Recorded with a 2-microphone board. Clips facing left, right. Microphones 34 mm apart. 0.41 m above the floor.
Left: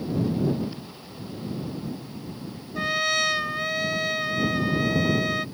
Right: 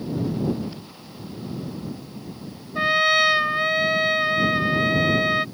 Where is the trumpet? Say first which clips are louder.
Right 6 dB; 25° right (ahead or behind).